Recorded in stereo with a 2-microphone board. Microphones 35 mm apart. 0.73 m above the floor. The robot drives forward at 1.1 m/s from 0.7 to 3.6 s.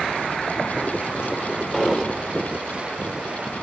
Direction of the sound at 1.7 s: 5° left (ahead or behind).